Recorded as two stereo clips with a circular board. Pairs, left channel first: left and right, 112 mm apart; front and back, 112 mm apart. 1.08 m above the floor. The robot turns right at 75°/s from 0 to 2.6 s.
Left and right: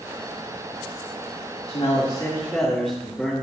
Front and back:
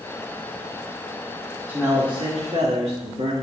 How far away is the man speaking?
About 2 m.